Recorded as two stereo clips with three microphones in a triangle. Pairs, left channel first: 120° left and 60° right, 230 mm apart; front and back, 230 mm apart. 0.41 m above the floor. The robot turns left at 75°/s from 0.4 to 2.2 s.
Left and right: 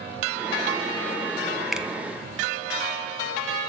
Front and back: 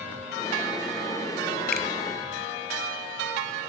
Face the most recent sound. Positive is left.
turn(degrees=-5)